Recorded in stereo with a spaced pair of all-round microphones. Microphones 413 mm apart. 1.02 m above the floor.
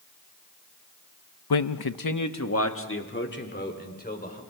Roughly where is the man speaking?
Left.